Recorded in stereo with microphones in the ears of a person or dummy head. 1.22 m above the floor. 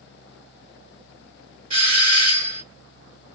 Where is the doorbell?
35° right (ahead or behind), 2 m.